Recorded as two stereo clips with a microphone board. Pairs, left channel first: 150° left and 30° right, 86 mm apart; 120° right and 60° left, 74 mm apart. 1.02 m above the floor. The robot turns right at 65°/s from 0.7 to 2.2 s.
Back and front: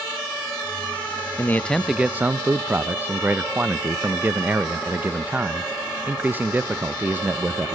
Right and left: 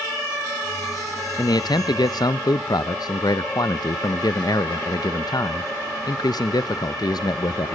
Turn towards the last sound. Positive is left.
turn(degrees=-100)